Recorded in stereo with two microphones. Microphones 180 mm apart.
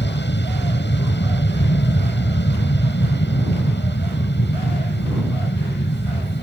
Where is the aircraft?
75° left (ahead or behind).